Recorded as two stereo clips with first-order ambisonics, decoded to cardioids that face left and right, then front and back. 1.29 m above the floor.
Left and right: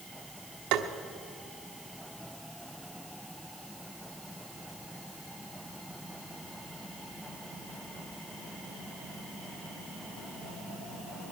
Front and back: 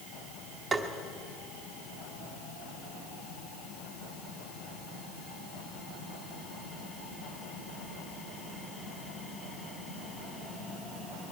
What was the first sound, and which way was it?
Tapping, 105° right.